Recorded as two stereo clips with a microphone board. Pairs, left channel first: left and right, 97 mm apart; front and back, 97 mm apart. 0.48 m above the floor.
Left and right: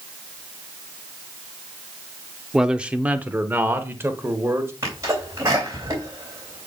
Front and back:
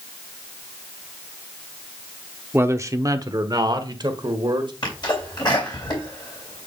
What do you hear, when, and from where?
2.5 s a man speaking: 170° right, 0.7 m; by 4.7 s 150° right, 1.7 m
4.8 s a sneeze: 40° right, 3 m